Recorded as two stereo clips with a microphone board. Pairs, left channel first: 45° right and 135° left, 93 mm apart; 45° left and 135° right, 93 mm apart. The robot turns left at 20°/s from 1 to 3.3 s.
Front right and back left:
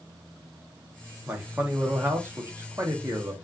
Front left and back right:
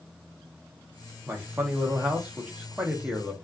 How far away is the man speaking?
About 0.8 m.